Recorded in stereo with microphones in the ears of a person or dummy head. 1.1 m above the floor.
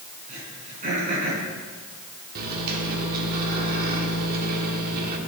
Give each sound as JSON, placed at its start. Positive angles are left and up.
{"t": 0.3, "sound": "throat clearing", "side_deg": -40, "distance_m": 5.5}
{"t": 2.4, "sound": "a microwave", "side_deg": -50, "distance_m": 2.0}